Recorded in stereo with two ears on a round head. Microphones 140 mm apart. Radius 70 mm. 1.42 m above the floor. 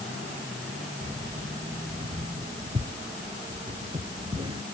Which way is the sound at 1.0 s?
45° right (ahead or behind).